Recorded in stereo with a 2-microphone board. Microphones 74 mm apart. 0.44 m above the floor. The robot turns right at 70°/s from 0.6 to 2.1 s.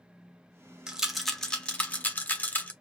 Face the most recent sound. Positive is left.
turn(degrees=25)  # may be behind; listen again after turning